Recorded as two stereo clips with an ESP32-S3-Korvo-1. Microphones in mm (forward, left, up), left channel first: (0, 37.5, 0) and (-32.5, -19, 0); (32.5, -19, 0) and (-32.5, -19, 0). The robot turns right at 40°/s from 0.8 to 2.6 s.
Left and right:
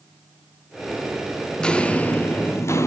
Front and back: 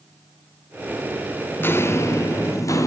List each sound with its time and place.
1.6 s footsteps: 10° right, 0.7 m; by 2.9 s 20° left, 1.3 m